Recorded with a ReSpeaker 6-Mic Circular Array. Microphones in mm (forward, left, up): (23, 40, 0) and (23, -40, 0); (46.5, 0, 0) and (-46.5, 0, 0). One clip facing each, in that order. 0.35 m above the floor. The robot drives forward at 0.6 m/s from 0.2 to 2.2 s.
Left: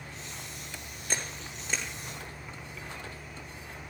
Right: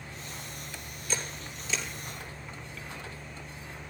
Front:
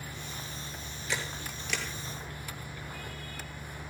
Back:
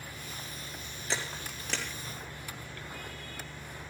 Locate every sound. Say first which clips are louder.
1.1 s a camera shutter: even, even; 125° left, 2.5 m; by 1.9 s 130° left, 3 m